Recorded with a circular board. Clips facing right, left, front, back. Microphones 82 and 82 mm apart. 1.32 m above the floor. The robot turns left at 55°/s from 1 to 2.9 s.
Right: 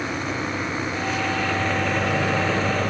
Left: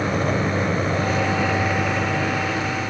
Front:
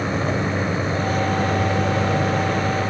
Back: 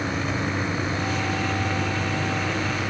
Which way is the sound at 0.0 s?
50° left.